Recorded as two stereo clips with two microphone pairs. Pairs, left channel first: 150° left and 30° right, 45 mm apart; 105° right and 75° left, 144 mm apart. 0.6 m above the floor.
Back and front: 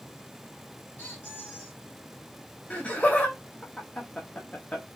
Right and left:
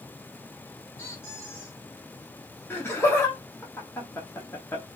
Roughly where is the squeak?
Behind.